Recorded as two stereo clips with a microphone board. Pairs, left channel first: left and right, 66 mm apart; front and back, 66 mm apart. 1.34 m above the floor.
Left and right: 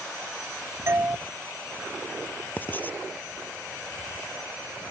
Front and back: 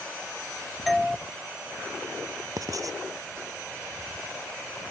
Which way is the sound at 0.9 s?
90° right.